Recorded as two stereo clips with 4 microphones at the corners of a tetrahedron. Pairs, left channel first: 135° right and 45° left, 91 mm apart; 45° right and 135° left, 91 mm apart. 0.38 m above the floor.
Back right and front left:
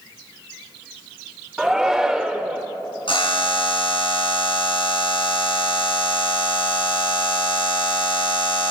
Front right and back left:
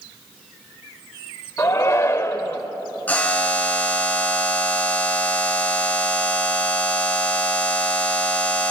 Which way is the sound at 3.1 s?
120° right.